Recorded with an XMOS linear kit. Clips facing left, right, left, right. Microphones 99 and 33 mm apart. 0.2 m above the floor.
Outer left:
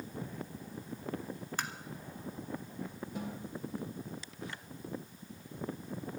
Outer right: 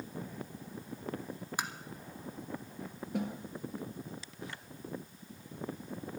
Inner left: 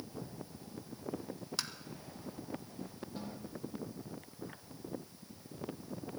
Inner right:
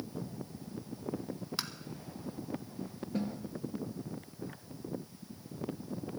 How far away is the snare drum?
About 2.5 m.